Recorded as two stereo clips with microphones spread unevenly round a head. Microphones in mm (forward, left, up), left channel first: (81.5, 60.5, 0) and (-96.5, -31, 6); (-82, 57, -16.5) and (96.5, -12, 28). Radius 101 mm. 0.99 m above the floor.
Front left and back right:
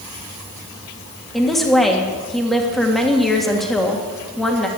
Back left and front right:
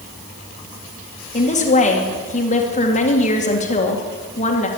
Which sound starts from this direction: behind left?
A woman speaking, at 1.3 s.